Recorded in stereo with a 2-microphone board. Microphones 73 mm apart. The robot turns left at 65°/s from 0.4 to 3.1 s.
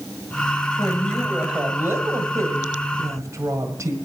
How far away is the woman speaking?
About 2.0 m.